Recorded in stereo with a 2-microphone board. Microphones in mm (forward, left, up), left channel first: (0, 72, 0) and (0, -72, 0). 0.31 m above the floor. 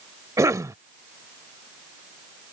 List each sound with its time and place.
0.4 s a cough: 20° right (ahead or behind)